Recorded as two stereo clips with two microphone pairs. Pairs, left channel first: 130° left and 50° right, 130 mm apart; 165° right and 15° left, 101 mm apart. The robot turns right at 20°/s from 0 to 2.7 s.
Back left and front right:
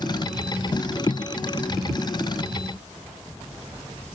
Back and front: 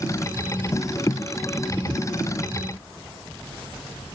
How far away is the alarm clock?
I don't hear an alarm clock.